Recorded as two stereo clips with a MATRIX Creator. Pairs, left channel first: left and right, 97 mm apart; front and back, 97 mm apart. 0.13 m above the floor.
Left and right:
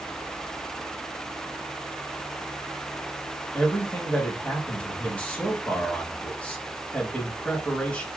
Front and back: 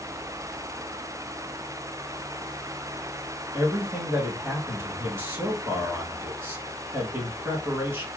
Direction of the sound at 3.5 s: 150° left.